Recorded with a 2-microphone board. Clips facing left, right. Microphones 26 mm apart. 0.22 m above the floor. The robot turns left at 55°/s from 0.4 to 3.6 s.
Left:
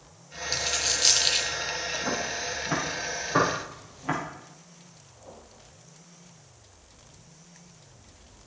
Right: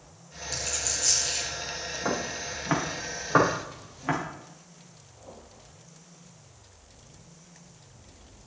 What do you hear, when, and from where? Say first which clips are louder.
0.5 s a dropped coin: left 5 dB; 45° left (ahead or behind), 1.1 m; by 1.5 s 80° left, 1.1 m
2.0 s footsteps: left 1 dB; 60° right (ahead or behind), 6 m; by 4.2 s 25° right (ahead or behind), 5 m